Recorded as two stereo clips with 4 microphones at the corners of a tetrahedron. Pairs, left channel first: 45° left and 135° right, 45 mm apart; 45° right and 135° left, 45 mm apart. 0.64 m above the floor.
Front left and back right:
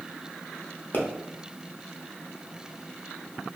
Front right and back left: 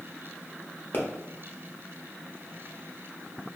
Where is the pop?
Straight ahead, 0.7 m.